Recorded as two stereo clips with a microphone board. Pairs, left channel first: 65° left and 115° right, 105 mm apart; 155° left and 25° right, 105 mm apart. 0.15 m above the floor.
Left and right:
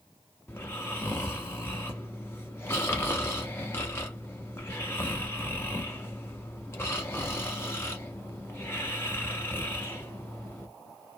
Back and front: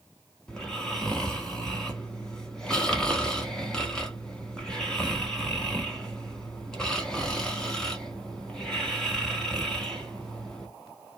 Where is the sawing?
No sawing in this recording.